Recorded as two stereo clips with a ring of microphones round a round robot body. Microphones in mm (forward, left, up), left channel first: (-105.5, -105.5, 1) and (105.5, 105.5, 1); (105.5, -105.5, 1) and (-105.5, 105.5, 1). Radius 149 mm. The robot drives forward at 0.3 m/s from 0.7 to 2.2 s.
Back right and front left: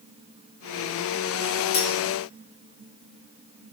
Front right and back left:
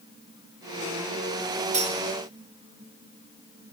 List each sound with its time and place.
1.7 s cutlery clinking: 155° right, 0.9 m; by 2.0 s 160° right, 1.0 m